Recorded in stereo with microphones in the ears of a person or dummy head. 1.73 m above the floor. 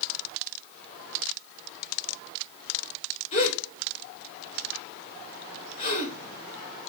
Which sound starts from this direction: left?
A gasp, at 3.3 s.